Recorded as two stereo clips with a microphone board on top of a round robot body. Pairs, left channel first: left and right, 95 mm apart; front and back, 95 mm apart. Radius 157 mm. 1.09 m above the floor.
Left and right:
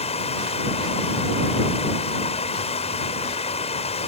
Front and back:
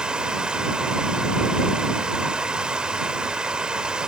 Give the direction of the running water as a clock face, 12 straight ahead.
9 o'clock.